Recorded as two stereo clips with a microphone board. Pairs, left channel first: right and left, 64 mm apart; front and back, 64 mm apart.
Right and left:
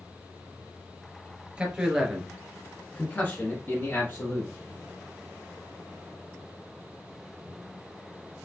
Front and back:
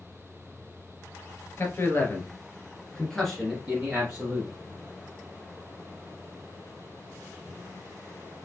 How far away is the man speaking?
About 1.7 m.